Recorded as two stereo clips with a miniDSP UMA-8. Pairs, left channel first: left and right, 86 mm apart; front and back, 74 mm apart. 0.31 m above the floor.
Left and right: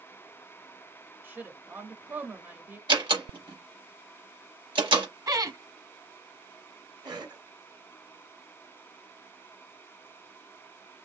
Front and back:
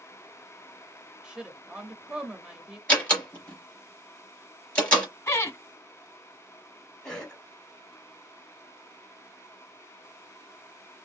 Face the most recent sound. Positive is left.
turn(degrees=-80)